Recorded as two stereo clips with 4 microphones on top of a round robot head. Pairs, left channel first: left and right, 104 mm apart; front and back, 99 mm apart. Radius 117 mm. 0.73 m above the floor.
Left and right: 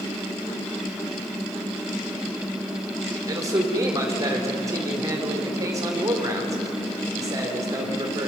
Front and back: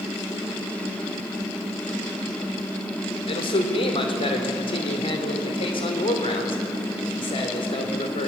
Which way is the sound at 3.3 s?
30° right.